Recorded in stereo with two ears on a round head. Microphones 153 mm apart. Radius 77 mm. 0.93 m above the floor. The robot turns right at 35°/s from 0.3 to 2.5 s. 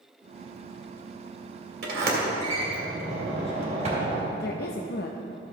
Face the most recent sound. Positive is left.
turn(degrees=60)  # may be behind; listen again after turning